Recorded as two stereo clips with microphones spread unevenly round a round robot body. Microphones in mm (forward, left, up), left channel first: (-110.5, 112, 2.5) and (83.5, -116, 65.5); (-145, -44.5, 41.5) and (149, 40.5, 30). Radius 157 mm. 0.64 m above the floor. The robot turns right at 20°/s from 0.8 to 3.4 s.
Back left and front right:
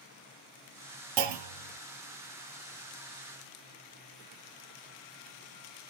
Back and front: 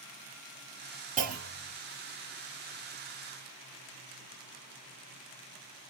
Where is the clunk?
45° right, 0.6 m; by 1.8 s 35° right, 0.6 m.